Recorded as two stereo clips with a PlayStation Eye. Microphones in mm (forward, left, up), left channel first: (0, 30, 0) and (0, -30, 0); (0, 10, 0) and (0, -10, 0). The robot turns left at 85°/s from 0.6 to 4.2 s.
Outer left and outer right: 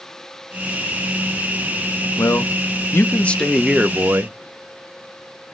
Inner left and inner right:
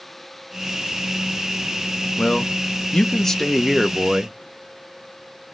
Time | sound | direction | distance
2.2 | a man speaking | 120° left | 0.7 m